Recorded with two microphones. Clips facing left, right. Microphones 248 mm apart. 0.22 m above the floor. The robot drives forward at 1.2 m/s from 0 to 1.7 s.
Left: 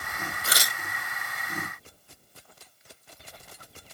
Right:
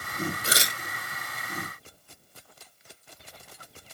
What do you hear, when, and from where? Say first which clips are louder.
0.4 s tearing paper: right 3 dB; 30° right (ahead or behind); by 0.8 s 20° right (ahead or behind)